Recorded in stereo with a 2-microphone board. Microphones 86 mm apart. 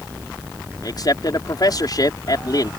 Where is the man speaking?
50° left (ahead or behind).